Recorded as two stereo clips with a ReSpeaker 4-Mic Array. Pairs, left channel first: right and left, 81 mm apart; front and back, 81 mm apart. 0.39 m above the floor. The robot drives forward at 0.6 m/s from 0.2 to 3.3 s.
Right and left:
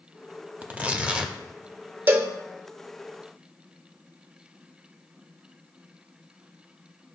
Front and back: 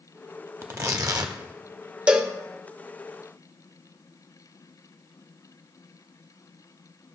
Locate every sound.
0.6 s tearing paper: 145° left, 0.7 m; by 1.4 s 165° left, 1.0 m
2.1 s a cowbell: 115° left, 0.8 m; by 2.3 s 135° left, 0.8 m